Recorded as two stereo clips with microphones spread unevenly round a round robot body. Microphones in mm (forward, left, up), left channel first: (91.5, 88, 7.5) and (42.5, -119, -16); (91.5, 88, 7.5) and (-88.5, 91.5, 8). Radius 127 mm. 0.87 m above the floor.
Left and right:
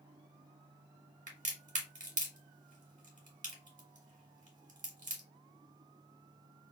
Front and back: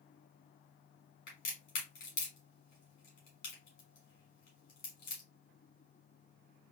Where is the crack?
55° right, 1.8 m.